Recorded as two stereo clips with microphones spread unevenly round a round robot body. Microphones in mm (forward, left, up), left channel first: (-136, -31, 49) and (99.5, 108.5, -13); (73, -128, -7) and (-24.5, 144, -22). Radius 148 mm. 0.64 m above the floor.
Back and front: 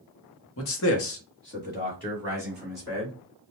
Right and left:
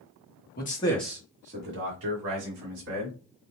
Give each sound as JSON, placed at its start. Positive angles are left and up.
{"t": 0.6, "sound": "a man speaking", "azimuth_deg": -115, "distance_m": 1.0}